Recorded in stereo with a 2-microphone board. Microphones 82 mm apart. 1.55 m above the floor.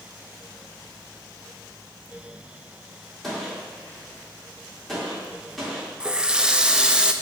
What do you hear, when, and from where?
3.2 s a gunshot: centre (ahead or behind), 3.5 m
6.0 s a running tap: 10° right (ahead or behind), 0.5 m